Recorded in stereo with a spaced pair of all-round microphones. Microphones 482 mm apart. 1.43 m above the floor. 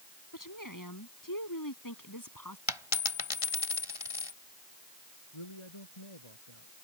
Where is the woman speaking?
40° left (ahead or behind); by 2.6 s 45° left (ahead or behind).